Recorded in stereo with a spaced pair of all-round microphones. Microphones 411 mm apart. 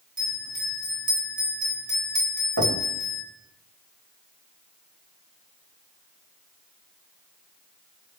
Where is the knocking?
55° right (ahead or behind), 1.4 m.